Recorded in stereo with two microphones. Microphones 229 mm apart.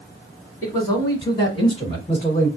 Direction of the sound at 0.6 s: 15° left (ahead or behind).